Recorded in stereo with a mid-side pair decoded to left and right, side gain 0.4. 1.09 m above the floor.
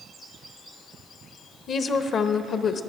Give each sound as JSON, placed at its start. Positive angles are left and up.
{"t": 1.7, "sound": "a woman speaking", "azimuth_deg": 60, "distance_m": 0.8}